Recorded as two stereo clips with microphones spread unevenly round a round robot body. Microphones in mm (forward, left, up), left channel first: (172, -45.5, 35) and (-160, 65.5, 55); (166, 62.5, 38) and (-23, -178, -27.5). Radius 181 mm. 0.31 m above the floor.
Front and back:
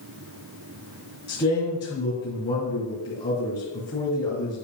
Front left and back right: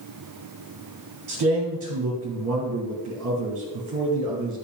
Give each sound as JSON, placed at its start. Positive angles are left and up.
{"t": 1.3, "sound": "a man speaking", "azimuth_deg": -95, "distance_m": 3.0}